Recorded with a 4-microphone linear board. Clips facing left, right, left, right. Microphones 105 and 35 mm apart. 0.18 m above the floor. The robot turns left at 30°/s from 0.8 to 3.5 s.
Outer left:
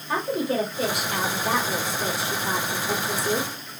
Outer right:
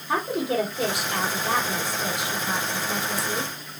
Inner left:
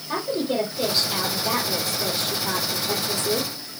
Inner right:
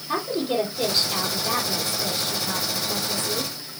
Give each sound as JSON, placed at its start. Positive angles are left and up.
{"t": 0.1, "sound": "a woman speaking", "azimuth_deg": -175, "distance_m": 6.0}